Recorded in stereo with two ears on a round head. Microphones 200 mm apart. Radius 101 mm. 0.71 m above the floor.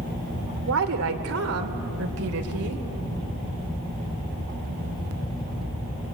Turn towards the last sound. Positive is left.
turn(degrees=-75)  # may be behind; listen again after turning